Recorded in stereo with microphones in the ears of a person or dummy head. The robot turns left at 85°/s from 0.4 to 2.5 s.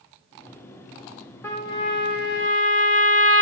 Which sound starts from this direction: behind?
A trumpet, at 1.4 s.